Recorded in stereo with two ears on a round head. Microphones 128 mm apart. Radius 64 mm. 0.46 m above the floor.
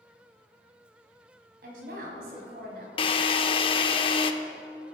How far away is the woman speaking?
About 3 m.